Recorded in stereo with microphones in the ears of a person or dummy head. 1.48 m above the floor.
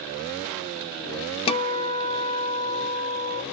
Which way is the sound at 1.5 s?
30° left (ahead or behind).